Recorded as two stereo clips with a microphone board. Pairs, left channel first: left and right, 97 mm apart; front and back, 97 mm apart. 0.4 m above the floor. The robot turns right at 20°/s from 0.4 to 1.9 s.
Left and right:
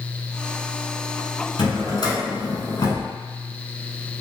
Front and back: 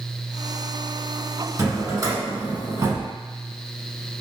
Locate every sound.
1.6 s a drawer: 125° left, 0.9 m; by 3.1 s 130° left, 0.9 m